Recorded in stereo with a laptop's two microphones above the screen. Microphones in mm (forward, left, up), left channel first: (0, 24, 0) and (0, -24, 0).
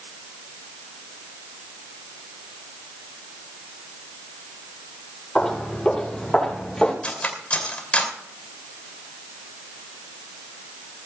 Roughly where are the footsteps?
Centre.